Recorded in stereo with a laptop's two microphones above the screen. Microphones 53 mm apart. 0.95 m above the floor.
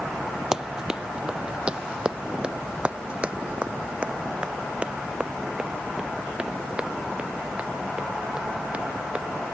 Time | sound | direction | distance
0.5 | running footsteps | 15° right (ahead or behind) | ?